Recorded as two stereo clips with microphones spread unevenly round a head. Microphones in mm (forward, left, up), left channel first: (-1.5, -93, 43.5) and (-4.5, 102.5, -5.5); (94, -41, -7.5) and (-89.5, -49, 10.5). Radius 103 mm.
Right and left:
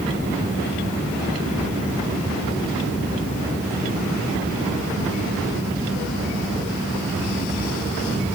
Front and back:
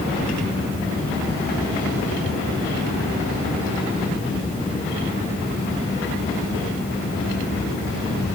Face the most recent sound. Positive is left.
No sound to turn to.